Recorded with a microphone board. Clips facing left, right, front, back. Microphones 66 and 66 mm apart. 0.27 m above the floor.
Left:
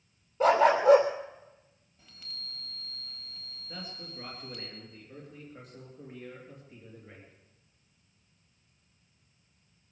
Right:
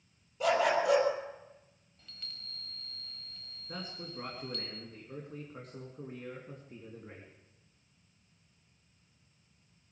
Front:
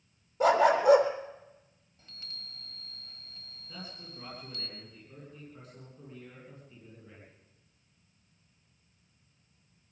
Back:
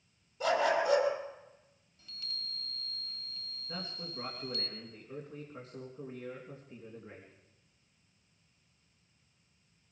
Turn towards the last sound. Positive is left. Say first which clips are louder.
# right 1 dB, back 3 dB
turn(degrees=-125)